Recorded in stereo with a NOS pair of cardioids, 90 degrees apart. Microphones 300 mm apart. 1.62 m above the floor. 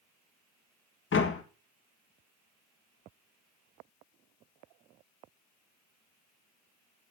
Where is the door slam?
45° left, 1.7 m.